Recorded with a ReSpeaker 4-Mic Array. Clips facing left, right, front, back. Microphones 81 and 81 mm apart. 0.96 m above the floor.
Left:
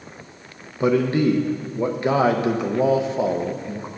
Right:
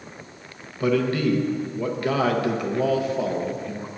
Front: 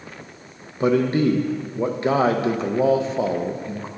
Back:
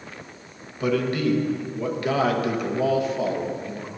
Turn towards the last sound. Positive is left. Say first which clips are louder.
# left 3 dB, front 5 dB
turn(degrees=40)